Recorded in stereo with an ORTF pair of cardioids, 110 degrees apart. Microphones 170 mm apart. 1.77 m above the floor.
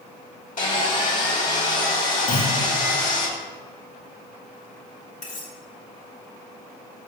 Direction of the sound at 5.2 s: 50° left.